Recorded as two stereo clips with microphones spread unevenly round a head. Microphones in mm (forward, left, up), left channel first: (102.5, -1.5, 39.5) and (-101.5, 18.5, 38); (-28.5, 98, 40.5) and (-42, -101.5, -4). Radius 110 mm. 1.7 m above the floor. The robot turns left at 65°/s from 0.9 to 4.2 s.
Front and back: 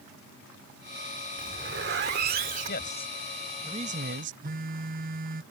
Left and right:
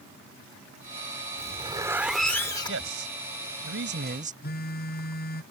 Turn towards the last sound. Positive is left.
turn(degrees=125)